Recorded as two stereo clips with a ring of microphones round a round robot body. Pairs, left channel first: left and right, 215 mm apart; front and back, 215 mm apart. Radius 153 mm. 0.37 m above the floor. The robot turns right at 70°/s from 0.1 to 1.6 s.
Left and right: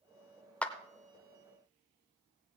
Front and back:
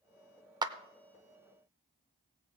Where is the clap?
160° left, 0.6 m; by 0.8 s 170° left, 0.6 m.